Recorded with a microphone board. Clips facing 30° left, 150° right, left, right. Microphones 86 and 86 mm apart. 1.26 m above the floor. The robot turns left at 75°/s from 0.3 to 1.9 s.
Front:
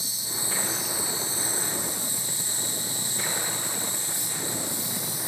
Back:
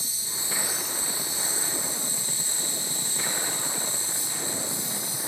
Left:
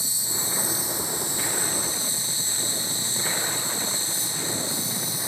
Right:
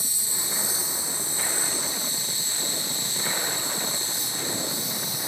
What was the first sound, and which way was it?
An insect, 160° left.